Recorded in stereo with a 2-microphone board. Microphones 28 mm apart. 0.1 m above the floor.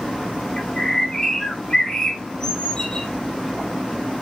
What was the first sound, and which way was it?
A bird, 25° left (ahead or behind).